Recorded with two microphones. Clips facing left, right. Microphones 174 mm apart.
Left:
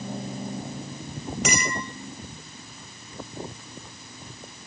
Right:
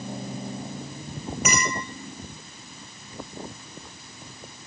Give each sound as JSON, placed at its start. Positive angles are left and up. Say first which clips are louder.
{"t": 1.4, "sound": "a clink", "louder": "right 1 dB", "side_deg": 85, "distance_m": 7.5}